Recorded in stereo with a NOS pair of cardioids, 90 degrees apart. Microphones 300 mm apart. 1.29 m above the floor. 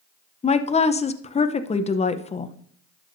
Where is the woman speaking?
20° left, 0.7 m.